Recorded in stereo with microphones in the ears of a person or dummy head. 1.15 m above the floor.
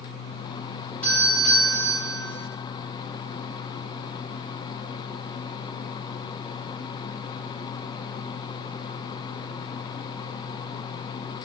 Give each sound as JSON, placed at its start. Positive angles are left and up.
{"t": 1.0, "sound": "a doorbell", "side_deg": 5, "distance_m": 2.5}